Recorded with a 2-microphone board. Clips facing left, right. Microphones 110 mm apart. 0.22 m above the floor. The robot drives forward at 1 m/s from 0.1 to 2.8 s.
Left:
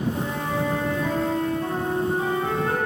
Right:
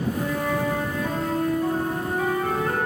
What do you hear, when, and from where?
0.1 s a flute: 20° left (ahead or behind), 1.7 m; by 2.8 s 10° left (ahead or behind), 3 m